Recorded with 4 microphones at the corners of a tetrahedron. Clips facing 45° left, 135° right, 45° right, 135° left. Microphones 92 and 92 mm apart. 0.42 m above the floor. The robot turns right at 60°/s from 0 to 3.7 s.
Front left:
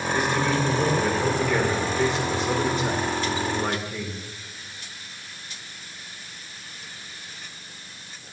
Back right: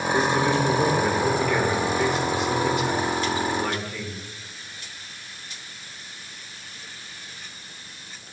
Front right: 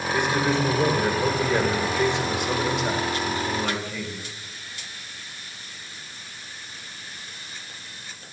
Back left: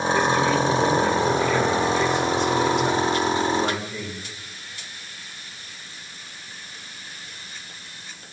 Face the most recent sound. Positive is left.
turn(degrees=100)